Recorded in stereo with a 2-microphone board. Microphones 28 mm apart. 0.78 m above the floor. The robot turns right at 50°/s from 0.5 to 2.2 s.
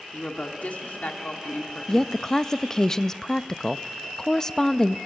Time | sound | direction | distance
0.1 | a woman speaking | 60° left | 2 m
1.9 | a woman speaking | 15° left (ahead or behind) | 0.5 m